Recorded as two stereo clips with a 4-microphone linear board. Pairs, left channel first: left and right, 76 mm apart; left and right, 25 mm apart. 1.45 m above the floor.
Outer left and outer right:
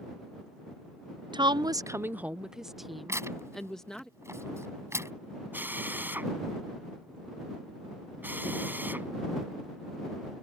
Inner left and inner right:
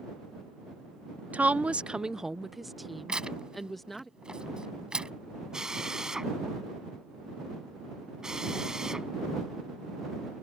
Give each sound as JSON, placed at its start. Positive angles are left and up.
{"t": 1.3, "sound": "a woman speaking", "side_deg": -80}
{"t": 3.1, "sound": "tearing paper", "side_deg": -40}
{"t": 5.5, "sound": "a drill", "side_deg": -25}